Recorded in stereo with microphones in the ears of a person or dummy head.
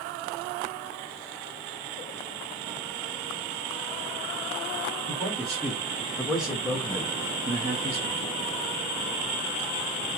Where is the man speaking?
5° left (ahead or behind), 1.6 m; by 8.2 s 40° right (ahead or behind), 0.5 m.